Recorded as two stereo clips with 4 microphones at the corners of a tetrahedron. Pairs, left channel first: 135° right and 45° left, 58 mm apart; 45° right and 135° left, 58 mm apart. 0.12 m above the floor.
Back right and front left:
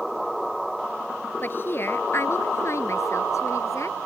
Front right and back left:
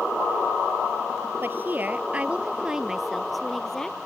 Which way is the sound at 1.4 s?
Straight behind.